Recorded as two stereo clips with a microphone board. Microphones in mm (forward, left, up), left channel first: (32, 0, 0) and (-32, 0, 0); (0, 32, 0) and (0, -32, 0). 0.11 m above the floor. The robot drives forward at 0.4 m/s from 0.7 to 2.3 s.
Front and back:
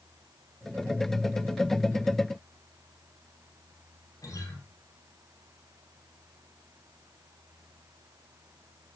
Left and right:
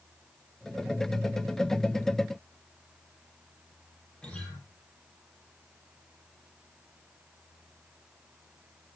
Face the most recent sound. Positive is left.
turn(degrees=15)